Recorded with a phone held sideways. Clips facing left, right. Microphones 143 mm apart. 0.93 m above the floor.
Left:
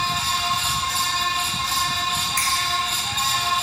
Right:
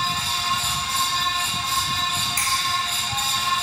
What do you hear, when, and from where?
0.0 s a fan: 85° left, 1.5 m
2.4 s a finger snap: 30° right (ahead or behind), 1.7 m